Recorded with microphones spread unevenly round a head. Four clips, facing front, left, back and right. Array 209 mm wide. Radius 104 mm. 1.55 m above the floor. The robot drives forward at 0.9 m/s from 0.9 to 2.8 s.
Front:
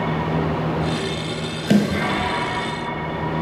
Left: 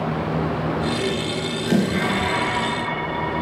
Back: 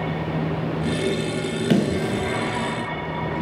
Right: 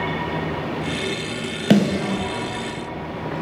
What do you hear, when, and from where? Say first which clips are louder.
1.7 s a snare drum: right 3 dB, front 3 dB; 85° right, 3 m; by 2.2 s 95° right, 3 m